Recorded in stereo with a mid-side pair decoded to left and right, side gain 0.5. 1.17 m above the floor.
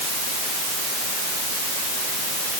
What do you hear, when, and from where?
Only background noise.